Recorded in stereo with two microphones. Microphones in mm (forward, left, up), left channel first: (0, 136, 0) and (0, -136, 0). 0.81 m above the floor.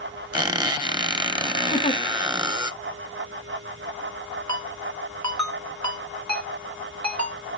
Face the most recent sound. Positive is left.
turn(degrees=-80)